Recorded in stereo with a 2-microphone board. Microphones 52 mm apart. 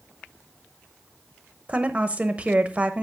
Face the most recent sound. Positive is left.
turn(degrees=-25)  # may be behind; listen again after turning